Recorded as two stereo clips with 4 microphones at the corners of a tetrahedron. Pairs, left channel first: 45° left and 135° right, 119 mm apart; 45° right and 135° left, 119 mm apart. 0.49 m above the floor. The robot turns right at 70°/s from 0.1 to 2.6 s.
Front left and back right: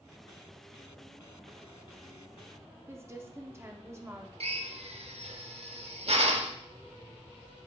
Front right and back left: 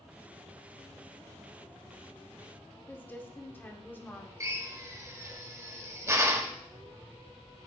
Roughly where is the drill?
Behind.